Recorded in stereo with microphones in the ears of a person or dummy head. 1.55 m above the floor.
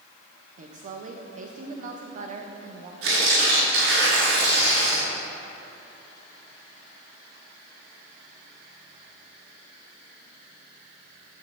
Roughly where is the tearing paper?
Right.